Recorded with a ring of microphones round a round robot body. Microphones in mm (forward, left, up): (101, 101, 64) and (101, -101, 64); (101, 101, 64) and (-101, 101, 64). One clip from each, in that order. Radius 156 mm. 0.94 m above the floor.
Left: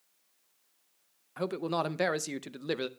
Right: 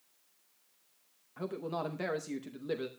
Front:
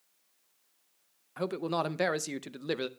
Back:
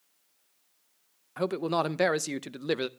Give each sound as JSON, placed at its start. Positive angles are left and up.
{"t": 1.4, "sound": "a man speaking", "azimuth_deg": 100, "distance_m": 0.6}